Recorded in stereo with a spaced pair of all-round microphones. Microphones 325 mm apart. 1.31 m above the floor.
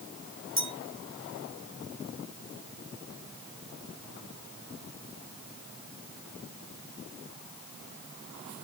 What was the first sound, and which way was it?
A clink, 55° left (ahead or behind).